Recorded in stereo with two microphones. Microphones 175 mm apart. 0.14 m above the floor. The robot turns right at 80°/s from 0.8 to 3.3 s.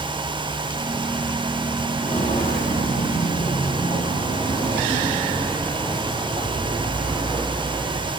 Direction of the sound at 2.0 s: 20° left (ahead or behind).